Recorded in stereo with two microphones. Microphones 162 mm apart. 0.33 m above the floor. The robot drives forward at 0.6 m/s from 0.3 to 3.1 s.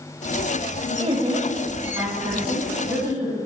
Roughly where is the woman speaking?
Right.